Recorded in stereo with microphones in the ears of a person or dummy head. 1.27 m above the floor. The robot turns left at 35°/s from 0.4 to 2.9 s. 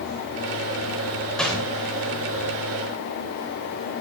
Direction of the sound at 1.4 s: Centre (ahead or behind).